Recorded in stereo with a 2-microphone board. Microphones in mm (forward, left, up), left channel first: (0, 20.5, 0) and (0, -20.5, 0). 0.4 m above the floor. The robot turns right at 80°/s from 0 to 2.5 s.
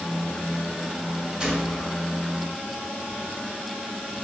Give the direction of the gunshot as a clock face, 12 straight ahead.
1 o'clock.